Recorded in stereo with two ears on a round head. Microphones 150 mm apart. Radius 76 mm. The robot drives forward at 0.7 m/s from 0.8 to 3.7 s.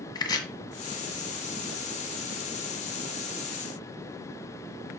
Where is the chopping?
25° left (ahead or behind), 1.6 m.